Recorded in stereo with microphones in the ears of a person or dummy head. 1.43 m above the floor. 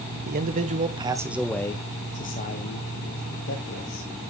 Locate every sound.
0.2 s a man speaking: 50° right (ahead or behind), 1.1 m; by 4.1 s 70° left (ahead or behind), 2.0 m